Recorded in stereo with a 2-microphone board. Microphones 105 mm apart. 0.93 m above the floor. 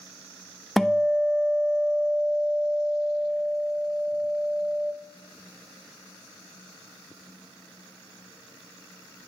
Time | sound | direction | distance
0.8 | a guitar | centre (ahead or behind) | 0.8 m